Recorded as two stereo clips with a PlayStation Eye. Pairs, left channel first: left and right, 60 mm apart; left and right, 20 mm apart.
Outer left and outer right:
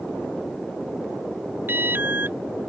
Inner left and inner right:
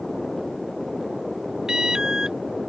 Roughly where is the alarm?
Right.